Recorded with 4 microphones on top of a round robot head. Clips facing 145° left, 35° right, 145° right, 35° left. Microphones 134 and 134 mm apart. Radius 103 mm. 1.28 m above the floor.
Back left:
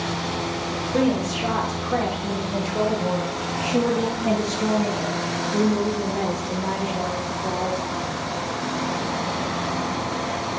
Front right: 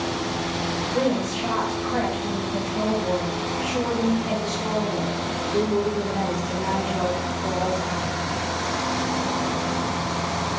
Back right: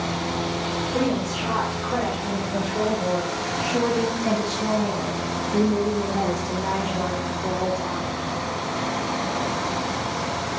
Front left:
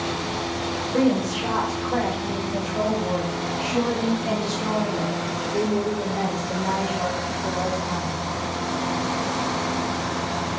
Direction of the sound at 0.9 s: 110° left.